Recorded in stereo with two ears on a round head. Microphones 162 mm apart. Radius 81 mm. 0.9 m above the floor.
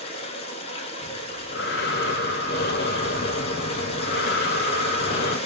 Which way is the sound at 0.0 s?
35° left (ahead or behind).